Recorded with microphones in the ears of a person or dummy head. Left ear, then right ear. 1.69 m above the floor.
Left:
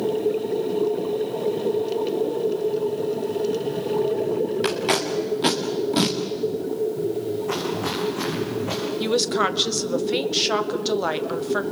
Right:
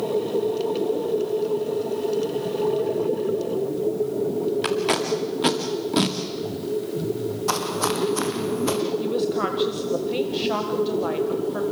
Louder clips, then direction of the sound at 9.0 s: Left 2 dB; 50° left (ahead or behind).